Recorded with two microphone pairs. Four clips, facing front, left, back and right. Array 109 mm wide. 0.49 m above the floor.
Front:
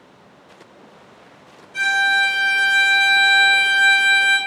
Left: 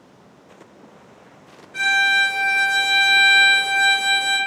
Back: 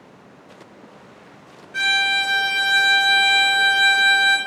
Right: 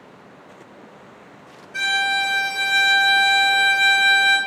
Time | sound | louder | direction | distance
1.7 | a violin | left 3 dB, front 4 dB | 155° left | 1.2 m